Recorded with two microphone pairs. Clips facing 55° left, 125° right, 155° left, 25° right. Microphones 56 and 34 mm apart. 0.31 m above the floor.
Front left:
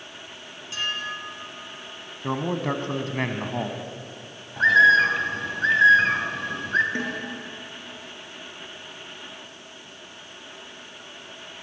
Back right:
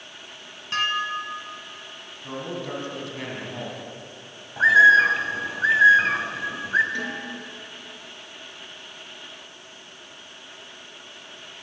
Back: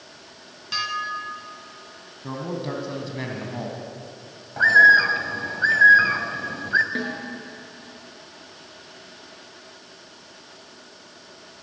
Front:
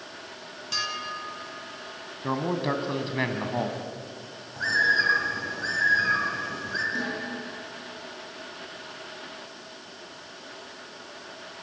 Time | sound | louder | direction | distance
0.7 | dishes clattering | back right 5 dB, back 5 dB | 140° right | 2 m
2.2 | a man speaking | front left 6 dB, front 3 dB | 30° left | 2.5 m
4.6 | a bird | back right 2 dB, back 10 dB | 155° left | 2 m
7.0 | a snare drum | front left 1 dB, back 2 dB | 115° left | 6 m